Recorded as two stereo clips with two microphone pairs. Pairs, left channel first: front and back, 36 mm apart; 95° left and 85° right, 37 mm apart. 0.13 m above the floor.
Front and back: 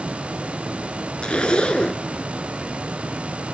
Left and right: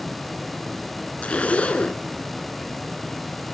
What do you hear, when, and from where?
1.2 s a zipper: 55° left, 0.9 m